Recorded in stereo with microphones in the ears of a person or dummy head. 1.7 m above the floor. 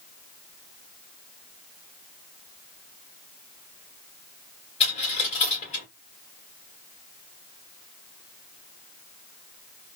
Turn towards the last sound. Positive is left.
turn(degrees=40)  # may be behind; listen again after turning